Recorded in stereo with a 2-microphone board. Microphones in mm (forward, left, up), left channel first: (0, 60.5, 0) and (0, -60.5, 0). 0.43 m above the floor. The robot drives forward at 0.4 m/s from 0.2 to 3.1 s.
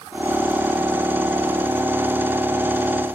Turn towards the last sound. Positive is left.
No sound to turn to.